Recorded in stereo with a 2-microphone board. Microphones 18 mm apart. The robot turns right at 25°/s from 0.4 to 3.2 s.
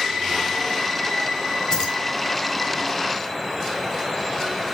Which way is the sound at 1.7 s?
40° left (ahead or behind).